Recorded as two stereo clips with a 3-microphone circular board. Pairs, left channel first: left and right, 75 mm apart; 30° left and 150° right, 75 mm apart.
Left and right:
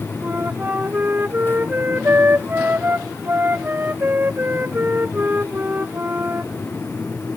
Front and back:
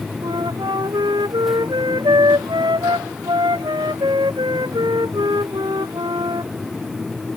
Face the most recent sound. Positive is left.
turn(degrees=-155)